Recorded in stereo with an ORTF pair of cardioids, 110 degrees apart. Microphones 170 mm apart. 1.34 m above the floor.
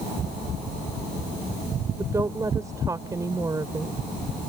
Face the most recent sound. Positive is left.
turn(degrees=-20)